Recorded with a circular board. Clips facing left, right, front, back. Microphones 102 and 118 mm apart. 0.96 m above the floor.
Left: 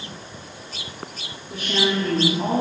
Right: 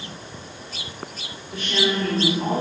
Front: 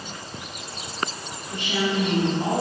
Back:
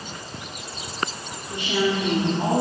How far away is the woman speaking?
About 2.5 m.